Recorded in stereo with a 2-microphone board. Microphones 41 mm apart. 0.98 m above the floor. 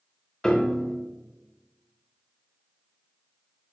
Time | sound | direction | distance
0.4 | a piano | 20° left (ahead or behind) | 0.7 m